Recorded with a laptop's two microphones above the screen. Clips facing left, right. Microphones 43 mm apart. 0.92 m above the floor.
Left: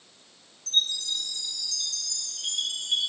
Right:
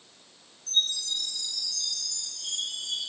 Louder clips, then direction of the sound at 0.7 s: Left 1 dB; 80° left.